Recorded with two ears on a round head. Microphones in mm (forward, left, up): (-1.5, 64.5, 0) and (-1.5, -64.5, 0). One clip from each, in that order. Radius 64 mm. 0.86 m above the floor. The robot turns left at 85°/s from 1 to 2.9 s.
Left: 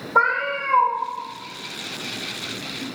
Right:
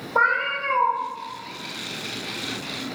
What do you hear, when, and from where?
0.1 s a cat meowing: 55° left (ahead or behind), 1.2 m